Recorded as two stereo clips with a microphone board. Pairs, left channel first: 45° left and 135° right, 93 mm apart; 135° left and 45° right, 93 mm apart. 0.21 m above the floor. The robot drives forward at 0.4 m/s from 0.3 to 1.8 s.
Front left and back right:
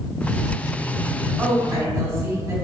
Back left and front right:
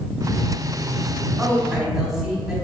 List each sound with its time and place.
1.4 s a woman speaking: 115° right, 1.1 m; by 2.5 s 130° right, 1.1 m